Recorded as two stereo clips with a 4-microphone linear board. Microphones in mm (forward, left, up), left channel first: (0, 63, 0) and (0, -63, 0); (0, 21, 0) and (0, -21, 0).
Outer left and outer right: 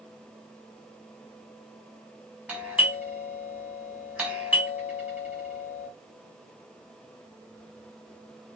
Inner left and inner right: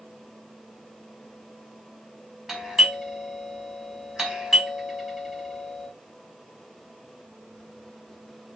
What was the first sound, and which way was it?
A doorbell, 15° right (ahead or behind).